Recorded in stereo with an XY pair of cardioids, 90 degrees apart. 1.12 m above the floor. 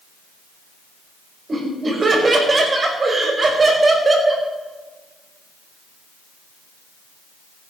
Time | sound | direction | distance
1.5 | laughter | 35° right | 5.5 m